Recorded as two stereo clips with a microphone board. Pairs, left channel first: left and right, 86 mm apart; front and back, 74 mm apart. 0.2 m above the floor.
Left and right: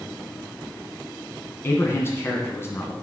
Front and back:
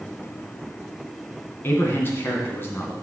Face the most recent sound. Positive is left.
turn(degrees=45)